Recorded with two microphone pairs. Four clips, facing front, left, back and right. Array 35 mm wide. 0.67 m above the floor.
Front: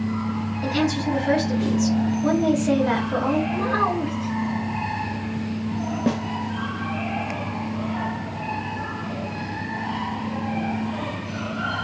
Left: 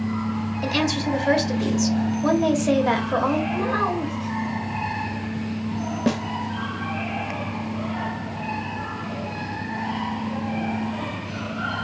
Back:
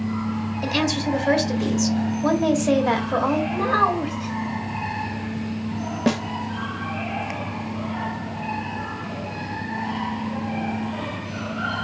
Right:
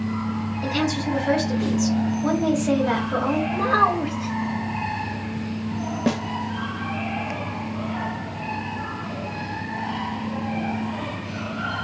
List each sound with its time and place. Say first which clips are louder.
0.6 s a woman speaking: left 1 dB, even; 120° left, 1.5 m
3.5 s a child speaking: right 4 dB, back 2 dB; 130° right, 0.8 m
6.1 s a snare drum: even, back 2 dB; straight behind, 0.5 m